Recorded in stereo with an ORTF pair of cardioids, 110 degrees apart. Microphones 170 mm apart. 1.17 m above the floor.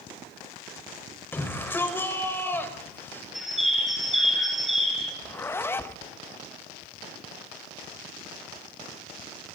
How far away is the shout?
About 5 m.